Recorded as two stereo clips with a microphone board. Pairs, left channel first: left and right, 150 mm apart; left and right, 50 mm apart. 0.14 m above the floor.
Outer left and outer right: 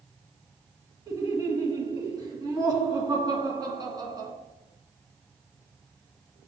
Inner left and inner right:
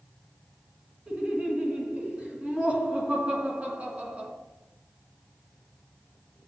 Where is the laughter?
25° right (ahead or behind), 1.6 m.